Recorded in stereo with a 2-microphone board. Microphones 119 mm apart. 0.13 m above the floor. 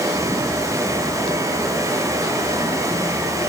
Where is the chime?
No chime in this recording.